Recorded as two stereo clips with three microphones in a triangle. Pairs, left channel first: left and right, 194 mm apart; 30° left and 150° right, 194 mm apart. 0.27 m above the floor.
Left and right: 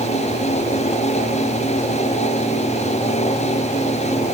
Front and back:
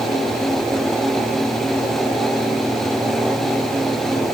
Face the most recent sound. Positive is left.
No sound to turn to.